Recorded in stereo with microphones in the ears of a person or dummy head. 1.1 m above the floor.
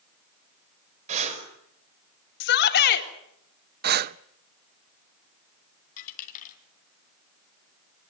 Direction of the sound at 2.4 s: 55° left (ahead or behind).